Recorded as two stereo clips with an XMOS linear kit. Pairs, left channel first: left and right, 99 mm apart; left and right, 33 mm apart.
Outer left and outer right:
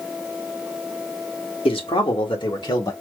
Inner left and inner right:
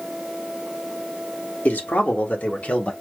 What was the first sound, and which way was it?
A man speaking, 75° left (ahead or behind).